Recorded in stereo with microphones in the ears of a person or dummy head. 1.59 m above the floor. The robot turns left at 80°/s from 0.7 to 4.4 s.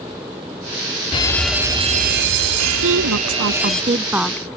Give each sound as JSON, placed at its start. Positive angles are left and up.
{"t": 1.1, "sound": "a fire alarm", "azimuth_deg": 30}
{"t": 2.8, "sound": "a woman speaking", "azimuth_deg": -60}